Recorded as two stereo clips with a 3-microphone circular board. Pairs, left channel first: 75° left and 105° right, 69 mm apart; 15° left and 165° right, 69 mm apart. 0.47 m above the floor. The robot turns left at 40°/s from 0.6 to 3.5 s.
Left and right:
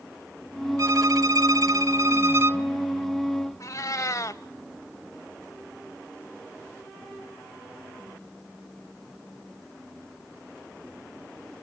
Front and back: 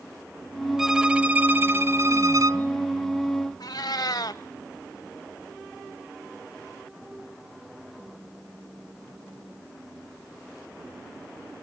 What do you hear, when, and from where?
0.8 s a violin: 85° right, 0.7 m; by 2.6 s 155° right, 0.7 m
3.6 s a cat meowing: 35° left, 0.8 m